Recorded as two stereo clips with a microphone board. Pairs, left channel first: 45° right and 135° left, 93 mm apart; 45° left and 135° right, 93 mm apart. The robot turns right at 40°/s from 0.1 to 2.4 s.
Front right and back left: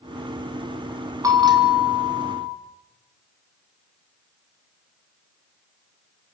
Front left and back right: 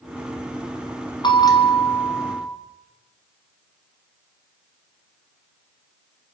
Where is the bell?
80° left, 5 m; by 2.5 s 130° left, 5 m.